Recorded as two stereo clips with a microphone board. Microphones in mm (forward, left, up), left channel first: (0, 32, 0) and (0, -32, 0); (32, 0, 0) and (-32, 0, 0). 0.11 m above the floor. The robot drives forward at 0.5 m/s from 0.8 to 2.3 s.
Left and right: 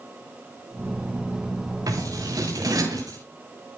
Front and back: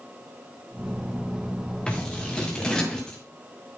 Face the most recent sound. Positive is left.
turn(degrees=-75)